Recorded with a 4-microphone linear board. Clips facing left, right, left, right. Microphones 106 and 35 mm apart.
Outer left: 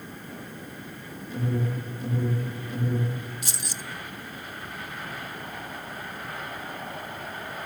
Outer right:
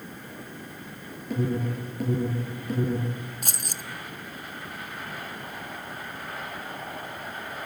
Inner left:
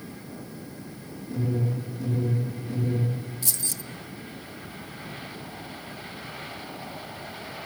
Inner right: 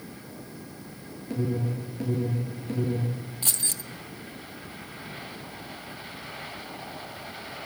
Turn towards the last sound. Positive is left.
turn(degrees=-50)  # may be behind; listen again after turning